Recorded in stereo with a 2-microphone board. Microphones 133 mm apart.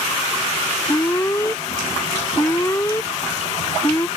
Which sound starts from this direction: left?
An alarm, at 0.9 s.